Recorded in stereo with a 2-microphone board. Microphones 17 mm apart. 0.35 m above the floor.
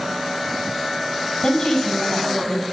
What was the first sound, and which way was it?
A woman speaking, 40° left (ahead or behind).